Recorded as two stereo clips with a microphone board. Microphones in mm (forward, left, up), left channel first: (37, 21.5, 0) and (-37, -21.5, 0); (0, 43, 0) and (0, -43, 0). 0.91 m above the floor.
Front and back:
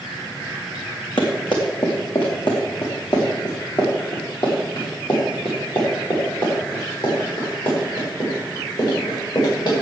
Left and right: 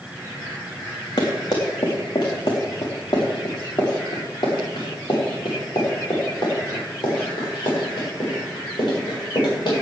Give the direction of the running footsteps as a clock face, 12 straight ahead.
10 o'clock.